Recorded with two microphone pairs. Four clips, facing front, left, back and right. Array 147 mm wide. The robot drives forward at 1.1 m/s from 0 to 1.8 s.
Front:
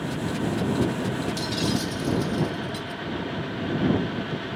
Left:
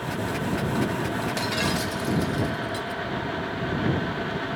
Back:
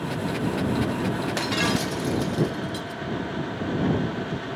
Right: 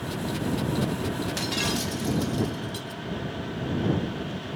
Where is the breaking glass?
175° left.